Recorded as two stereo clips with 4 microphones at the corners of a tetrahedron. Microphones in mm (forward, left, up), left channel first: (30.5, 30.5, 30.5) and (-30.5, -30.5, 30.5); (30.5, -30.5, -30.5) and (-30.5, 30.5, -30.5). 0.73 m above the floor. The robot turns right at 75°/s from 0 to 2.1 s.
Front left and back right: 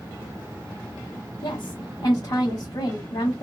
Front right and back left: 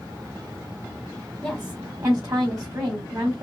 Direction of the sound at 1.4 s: 35° left.